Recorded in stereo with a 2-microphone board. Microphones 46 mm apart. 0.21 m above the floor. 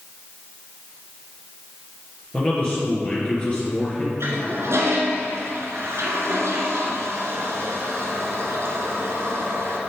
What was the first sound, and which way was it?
A man speaking, 25° left (ahead or behind).